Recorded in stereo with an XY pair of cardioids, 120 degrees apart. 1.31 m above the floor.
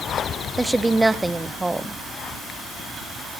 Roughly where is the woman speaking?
Ahead.